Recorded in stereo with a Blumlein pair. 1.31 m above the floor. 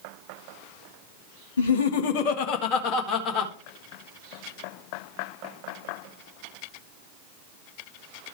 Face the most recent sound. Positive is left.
turn(degrees=20)